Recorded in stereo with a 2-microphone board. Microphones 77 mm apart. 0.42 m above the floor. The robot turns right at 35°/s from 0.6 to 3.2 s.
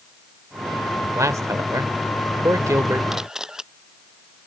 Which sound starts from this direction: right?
A man speaking, at 1.0 s.